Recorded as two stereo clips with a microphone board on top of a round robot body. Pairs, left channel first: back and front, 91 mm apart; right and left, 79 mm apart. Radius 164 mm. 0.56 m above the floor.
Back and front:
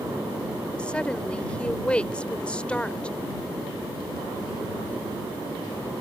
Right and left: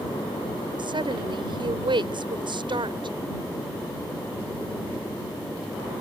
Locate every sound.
0.8 s a woman speaking: 100° left